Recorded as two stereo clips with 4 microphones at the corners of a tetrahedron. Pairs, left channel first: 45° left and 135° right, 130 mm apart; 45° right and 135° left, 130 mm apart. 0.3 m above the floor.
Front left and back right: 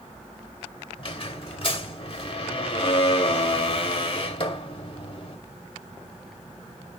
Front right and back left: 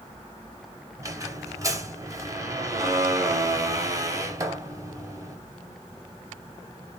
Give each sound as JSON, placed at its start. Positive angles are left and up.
{"t": 1.0, "sound": "a squeak", "azimuth_deg": 80, "distance_m": 0.7}